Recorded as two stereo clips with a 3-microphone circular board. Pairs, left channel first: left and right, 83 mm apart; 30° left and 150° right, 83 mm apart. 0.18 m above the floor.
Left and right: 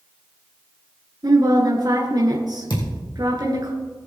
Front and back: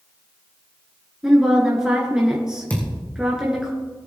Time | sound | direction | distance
1.2 | a woman speaking | 70° right | 2 m
2.7 | a thud | 100° left | 3.5 m